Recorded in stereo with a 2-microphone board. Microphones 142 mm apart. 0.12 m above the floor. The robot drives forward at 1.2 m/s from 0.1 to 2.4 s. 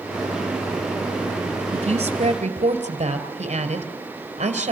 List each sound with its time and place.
1.7 s a woman speaking: 40° right (ahead or behind), 2.5 m; by 4.7 s 50° right (ahead or behind), 2 m